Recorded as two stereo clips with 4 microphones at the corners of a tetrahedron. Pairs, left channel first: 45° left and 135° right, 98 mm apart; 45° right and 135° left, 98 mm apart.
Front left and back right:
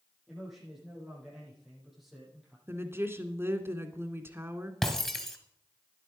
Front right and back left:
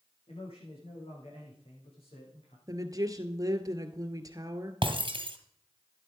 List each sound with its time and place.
0.3 s a man speaking: 50° right, 7.5 m
2.7 s a woman speaking: 170° left, 1.5 m
4.8 s breaking glass: 130° left, 1.7 m